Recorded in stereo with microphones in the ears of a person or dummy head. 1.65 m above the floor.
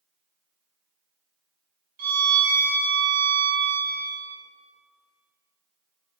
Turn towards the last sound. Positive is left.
turn(degrees=-55)  # may be behind; listen again after turning